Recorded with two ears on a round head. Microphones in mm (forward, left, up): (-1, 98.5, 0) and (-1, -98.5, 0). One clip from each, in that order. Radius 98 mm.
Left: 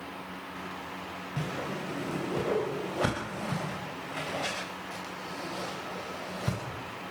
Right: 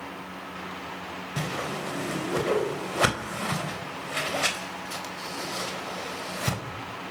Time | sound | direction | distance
1.4 | a whoosh | 55° right (ahead or behind) | 4 m